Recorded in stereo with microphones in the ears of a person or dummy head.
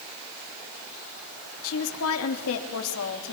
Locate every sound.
1.6 s a woman speaking: 80° left, 3 m